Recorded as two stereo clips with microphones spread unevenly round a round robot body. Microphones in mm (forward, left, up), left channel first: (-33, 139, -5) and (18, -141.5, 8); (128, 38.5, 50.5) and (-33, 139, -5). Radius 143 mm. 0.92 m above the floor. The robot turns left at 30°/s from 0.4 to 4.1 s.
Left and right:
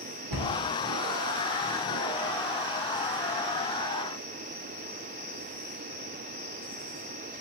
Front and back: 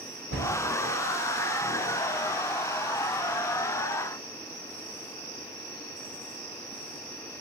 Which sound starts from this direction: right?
A cupboard door, at 0.3 s.